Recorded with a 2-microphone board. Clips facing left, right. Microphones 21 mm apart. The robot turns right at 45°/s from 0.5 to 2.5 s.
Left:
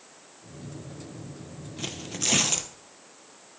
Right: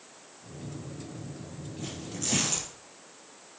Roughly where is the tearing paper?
Behind left.